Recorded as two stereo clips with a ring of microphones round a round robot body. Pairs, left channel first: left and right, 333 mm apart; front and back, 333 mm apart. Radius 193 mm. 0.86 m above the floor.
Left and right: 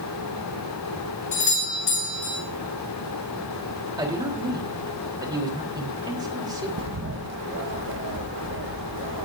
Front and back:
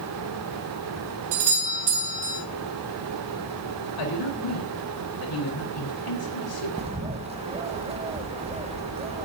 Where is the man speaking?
10° right, 3.5 m.